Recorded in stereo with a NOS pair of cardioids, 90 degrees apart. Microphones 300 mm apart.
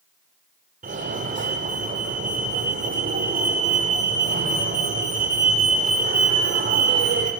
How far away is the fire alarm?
About 10 m.